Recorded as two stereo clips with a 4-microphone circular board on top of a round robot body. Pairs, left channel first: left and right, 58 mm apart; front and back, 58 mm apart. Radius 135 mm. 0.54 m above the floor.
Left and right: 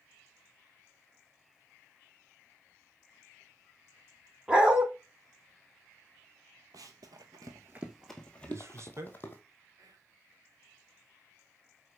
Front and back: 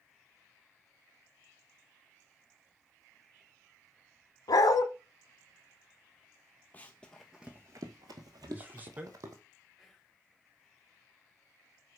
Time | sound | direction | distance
4.5 | a dog barking | 15° right | 1.5 m
6.7 | running footsteps | 70° right | 1.1 m
8.4 | a man speaking | 120° right | 2.5 m
9.8 | whispering | 90° right | 2.5 m